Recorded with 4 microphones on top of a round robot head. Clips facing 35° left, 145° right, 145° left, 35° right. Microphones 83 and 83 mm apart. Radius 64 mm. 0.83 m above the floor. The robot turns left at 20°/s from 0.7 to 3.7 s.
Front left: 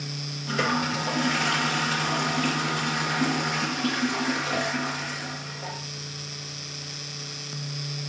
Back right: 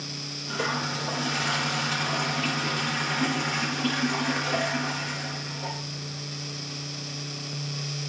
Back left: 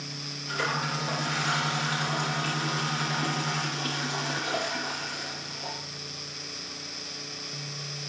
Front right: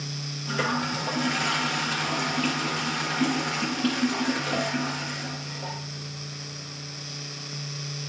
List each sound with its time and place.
0.5 s a toilet flushing: 10° left, 5.5 m; by 5.8 s 50° right, 5.5 m